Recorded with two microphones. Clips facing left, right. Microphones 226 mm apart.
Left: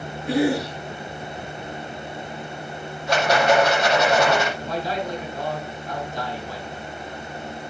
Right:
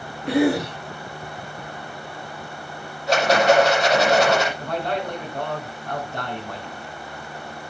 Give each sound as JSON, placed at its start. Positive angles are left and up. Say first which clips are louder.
{"t": 0.3, "sound": "a cough", "louder": "right 2 dB", "side_deg": -70, "distance_m": 3.5}
{"t": 3.1, "sound": "a rattle", "louder": "right 2 dB", "side_deg": -35, "distance_m": 7.0}
{"t": 4.6, "sound": "a man speaking", "louder": "right 1 dB", "side_deg": -60, "distance_m": 4.0}